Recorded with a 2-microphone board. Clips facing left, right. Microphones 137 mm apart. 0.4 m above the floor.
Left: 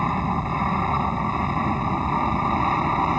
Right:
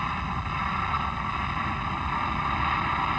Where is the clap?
No clap in this recording.